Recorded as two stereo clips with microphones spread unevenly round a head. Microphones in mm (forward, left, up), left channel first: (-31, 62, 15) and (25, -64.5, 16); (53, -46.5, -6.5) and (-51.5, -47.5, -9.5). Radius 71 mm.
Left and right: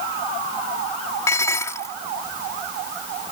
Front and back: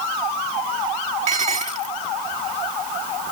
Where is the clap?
I don't hear a clap.